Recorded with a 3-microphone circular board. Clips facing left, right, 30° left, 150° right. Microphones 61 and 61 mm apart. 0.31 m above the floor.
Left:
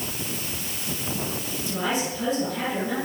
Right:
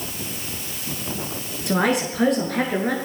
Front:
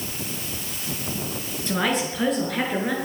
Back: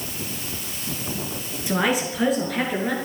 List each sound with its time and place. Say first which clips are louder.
1.7 s a woman speaking: right 7 dB, back 2 dB; 70° right, 5.5 m; by 2.9 s 60° right, 6.5 m